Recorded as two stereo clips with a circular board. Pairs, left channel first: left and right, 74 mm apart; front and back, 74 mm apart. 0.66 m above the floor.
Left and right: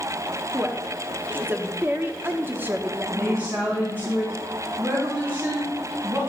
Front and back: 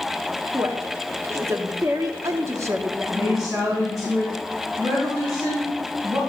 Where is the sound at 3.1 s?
150° right, 4.5 m.